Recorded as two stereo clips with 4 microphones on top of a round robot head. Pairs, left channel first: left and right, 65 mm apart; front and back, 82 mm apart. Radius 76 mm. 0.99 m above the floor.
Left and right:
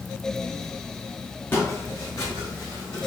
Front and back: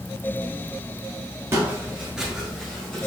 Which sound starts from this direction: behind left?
Footsteps, at 1.5 s.